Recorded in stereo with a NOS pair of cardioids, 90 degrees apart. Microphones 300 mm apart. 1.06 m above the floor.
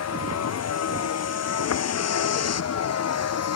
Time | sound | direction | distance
0.0 | a vehicle | 55° left | ?